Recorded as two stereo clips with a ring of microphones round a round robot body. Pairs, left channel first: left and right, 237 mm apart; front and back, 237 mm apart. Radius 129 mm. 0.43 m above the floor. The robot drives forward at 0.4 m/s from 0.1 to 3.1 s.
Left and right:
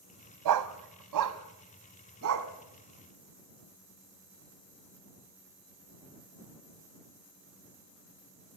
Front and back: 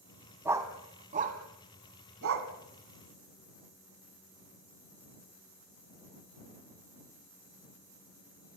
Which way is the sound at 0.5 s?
100° right.